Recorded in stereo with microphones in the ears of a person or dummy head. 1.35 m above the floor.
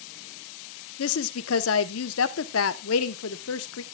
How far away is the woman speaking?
About 0.8 m.